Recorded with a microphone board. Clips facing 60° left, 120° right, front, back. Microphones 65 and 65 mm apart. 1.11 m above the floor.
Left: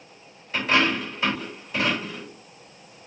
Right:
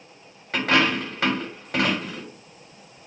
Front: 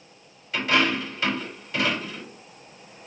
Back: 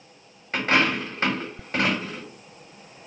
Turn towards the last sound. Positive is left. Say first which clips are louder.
# right 1 dB, back 1 dB
turn(degrees=-130)